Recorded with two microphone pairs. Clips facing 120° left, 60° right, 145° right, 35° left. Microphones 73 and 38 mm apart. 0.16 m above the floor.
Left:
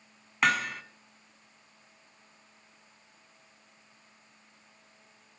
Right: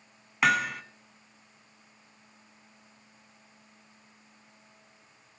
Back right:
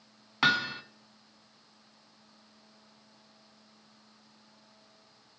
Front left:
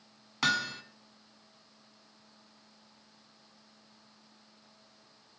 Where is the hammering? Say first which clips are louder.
Right 2 dB, back right 3 dB; 145° right, 0.5 m.